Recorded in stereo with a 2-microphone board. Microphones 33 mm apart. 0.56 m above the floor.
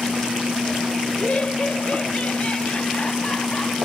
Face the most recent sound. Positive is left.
turn(degrees=35)  # may be behind; listen again after turning